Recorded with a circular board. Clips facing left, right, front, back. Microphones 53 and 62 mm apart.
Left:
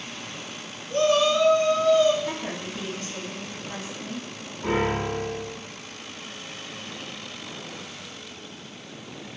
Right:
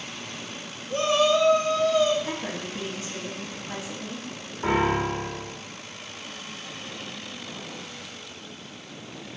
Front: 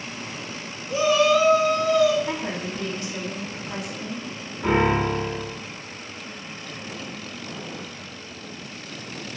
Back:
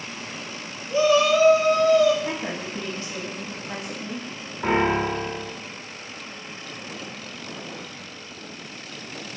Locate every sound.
0.9 s a shout: 55° right, 0.9 m; by 2.1 s 160° right, 1.3 m
2.2 s a woman speaking: 145° right, 1.1 m
4.6 s a piano: 125° right, 1.7 m